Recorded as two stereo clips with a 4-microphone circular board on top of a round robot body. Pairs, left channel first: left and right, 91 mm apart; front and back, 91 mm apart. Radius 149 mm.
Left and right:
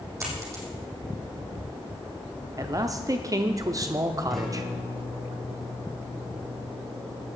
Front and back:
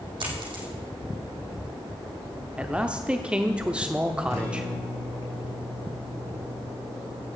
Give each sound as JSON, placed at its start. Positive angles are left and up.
{"t": 0.2, "sound": "a dropped coin", "azimuth_deg": -150, "distance_m": 4.5}
{"t": 2.6, "sound": "a man speaking", "azimuth_deg": -110, "distance_m": 1.1}
{"t": 4.3, "sound": "a guitar", "azimuth_deg": 0, "distance_m": 5.5}